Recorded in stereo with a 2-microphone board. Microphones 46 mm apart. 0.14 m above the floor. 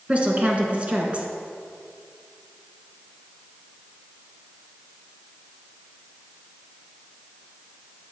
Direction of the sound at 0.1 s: 25° right (ahead or behind).